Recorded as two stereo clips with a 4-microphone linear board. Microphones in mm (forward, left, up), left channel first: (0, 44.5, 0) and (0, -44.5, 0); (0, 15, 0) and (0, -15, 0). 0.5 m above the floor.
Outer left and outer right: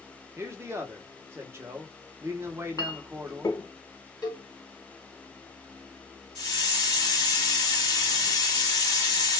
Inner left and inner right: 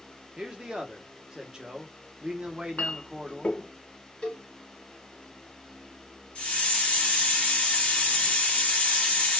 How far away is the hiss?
About 1.8 m.